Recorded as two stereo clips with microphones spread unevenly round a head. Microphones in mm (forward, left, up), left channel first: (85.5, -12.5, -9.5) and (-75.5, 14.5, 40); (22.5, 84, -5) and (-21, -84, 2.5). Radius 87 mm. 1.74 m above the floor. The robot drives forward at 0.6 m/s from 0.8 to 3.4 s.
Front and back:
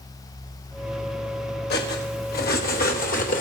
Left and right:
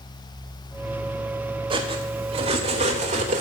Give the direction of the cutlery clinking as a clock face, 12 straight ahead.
1 o'clock.